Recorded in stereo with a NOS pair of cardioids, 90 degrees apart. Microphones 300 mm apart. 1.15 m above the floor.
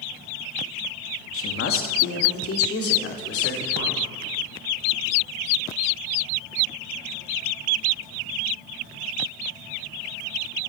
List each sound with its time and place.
1.3 s a man speaking: 50° left, 2 m